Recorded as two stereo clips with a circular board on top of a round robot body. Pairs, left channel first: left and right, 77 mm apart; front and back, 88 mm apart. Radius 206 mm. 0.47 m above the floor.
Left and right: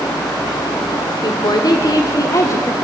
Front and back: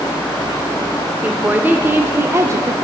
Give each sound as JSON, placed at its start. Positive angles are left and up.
{"t": 1.2, "sound": "a woman speaking", "azimuth_deg": 110, "distance_m": 2.5}